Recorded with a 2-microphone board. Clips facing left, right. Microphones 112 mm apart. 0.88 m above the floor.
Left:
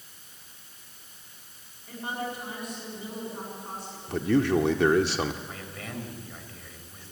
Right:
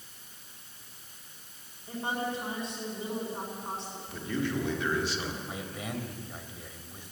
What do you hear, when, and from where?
1.9 s a woman speaking: 25° right (ahead or behind), 7.5 m
4.1 s a man speaking: 75° left (ahead or behind), 1.8 m
5.5 s a man speaking: 15° right (ahead or behind), 3.5 m